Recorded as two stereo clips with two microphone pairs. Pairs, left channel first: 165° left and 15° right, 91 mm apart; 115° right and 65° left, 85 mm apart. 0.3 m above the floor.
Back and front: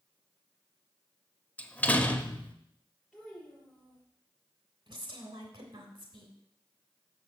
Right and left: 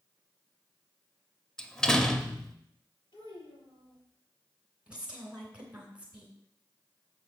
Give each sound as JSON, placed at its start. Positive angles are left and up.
{"t": 1.6, "sound": "a door slam", "azimuth_deg": 175, "distance_m": 0.7}
{"t": 3.1, "sound": "a child speaking", "azimuth_deg": -100, "distance_m": 5.5}
{"t": 4.9, "sound": "a woman speaking", "azimuth_deg": -10, "distance_m": 3.0}